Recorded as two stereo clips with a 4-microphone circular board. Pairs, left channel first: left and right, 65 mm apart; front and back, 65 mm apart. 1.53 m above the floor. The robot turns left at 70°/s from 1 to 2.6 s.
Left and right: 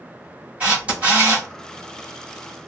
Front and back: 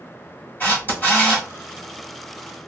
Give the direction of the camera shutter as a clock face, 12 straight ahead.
1 o'clock.